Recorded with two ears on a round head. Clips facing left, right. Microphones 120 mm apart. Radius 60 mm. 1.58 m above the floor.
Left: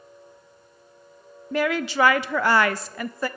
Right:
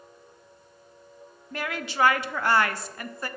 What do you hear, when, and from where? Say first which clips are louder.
1.5 s a woman speaking: left 9 dB; 60° left (ahead or behind), 0.6 m